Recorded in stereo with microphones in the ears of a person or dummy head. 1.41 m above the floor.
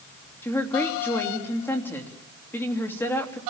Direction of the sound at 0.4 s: 15° left (ahead or behind).